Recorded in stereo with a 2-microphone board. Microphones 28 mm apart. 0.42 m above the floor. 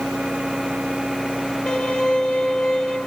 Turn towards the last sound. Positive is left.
turn(degrees=45)  # may be behind; listen again after turning